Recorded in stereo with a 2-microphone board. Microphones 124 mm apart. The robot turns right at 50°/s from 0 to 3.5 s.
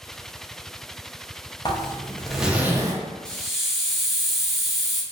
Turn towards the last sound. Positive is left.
turn(degrees=0)  # may be behind; listen again after turning